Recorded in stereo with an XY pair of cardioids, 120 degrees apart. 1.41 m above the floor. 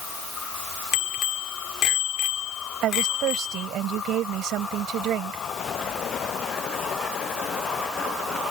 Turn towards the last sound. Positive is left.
turn(degrees=-70)